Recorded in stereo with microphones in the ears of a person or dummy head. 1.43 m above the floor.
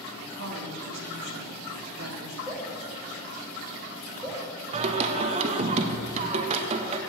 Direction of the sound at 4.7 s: 35° right (ahead or behind).